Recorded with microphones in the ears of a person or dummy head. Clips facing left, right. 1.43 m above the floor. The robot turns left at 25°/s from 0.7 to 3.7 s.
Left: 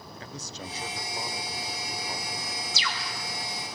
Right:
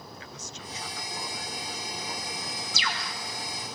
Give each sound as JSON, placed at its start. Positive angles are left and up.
{"t": 0.2, "sound": "a man speaking", "azimuth_deg": 40, "distance_m": 1.0}
{"t": 2.7, "sound": "a bird", "side_deg": -45, "distance_m": 1.4}